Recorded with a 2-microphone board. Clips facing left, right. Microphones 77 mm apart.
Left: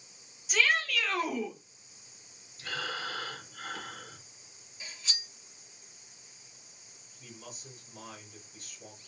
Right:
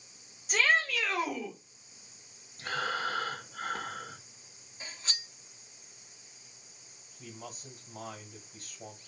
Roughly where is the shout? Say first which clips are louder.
Right 1 dB; right.